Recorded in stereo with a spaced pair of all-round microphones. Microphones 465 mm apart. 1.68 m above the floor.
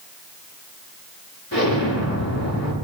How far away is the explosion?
About 6 m.